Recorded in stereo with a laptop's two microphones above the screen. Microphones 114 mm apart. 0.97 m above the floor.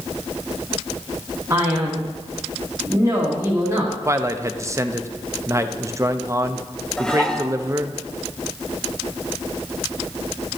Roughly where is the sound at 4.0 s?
Right.